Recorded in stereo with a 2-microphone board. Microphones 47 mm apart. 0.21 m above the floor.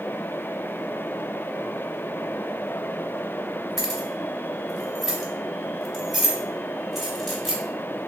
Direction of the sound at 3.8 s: Centre (ahead or behind).